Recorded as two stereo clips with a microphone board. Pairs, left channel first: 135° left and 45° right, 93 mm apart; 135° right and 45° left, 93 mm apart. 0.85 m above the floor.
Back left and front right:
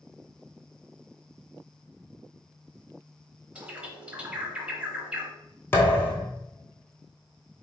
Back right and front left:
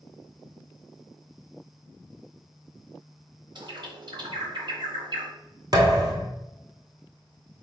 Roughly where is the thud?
Left.